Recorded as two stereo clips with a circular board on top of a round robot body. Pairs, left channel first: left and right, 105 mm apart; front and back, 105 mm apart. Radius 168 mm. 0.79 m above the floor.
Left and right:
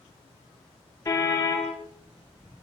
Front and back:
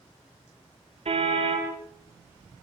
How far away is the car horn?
About 8 m.